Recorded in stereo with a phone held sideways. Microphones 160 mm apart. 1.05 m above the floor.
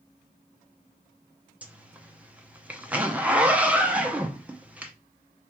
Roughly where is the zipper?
Centre.